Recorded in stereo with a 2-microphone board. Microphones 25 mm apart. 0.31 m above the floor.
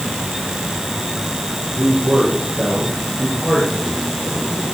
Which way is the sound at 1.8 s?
75° right (ahead or behind).